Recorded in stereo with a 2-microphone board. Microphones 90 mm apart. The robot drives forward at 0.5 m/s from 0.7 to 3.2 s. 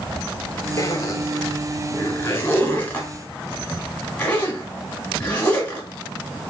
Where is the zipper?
35° left (ahead or behind), 0.6 m; by 5.9 s 15° left (ahead or behind), 1.2 m.